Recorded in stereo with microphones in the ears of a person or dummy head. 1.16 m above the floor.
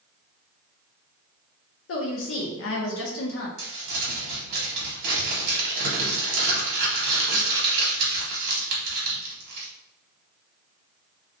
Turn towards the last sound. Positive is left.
turn(degrees=-75)  # may be behind; listen again after turning